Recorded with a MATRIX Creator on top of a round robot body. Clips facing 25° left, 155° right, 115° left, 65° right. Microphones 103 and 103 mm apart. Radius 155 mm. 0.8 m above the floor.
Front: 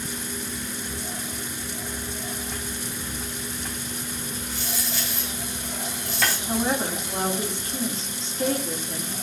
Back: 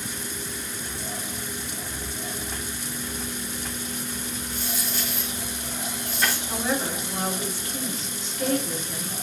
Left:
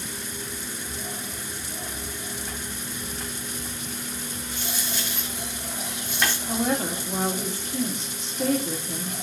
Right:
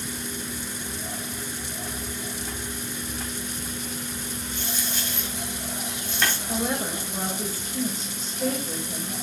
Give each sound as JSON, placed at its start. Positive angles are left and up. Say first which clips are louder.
{"t": 4.5, "sound": "a dropped coin", "louder": "even, left 1 dB", "azimuth_deg": 30, "distance_m": 3.0}
{"t": 6.5, "sound": "a woman speaking", "louder": "front 2 dB, left 2 dB", "azimuth_deg": 90, "distance_m": 2.5}